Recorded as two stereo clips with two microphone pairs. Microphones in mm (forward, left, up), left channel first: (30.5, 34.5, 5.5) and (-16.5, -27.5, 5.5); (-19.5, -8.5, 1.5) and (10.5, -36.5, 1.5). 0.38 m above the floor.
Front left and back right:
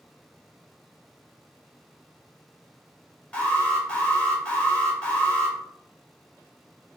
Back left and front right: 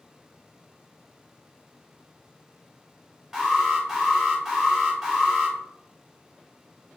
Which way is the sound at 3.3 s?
5° left.